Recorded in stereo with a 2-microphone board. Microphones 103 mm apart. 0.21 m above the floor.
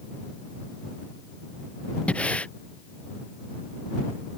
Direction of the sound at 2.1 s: 10° left (ahead or behind).